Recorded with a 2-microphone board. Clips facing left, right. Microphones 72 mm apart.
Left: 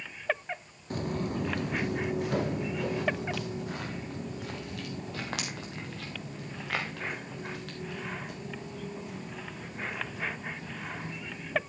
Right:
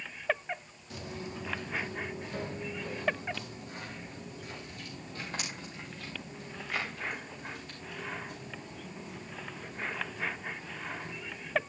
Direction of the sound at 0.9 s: 45° left (ahead or behind).